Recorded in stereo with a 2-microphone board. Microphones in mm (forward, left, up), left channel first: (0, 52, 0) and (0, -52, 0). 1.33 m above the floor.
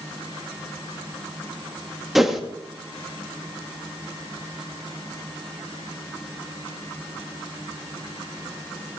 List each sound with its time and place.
2.1 s a whoosh: 5° right (ahead or behind), 2 m